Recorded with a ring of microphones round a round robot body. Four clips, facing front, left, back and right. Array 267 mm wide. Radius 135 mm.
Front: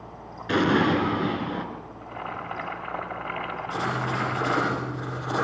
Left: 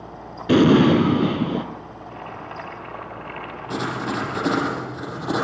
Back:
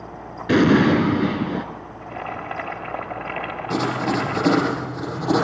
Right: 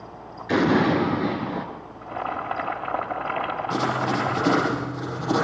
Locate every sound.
0.5 s an explosion: 125° left, 2.0 m
2.0 s boiling: 120° right, 1.8 m
3.7 s writing: 160° left, 7.5 m